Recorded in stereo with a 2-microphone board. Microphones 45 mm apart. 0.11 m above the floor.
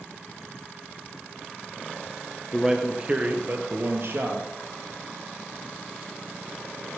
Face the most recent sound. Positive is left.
turn(degrees=-60)  # may be behind; listen again after turning